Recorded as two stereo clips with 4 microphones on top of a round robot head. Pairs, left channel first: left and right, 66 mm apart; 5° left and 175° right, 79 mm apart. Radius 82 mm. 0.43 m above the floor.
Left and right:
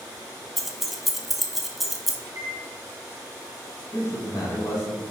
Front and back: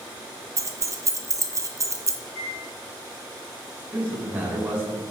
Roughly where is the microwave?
Ahead right.